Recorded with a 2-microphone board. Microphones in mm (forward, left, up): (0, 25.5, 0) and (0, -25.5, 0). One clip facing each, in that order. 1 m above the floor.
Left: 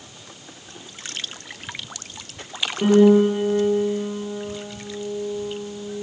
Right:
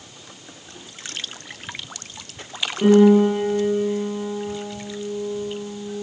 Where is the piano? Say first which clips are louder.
Right 1 dB; 5° left (ahead or behind), 8 m.